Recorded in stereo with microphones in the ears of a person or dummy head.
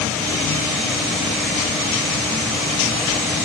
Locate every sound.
Only background noise.